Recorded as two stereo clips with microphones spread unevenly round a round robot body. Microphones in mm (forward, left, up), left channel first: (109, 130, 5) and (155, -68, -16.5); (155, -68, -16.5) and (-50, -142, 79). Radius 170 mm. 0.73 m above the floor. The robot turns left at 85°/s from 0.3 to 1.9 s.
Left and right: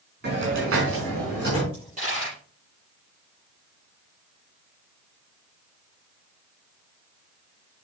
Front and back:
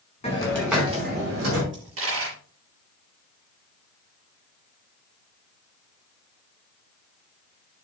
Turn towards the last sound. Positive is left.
turn(degrees=-150)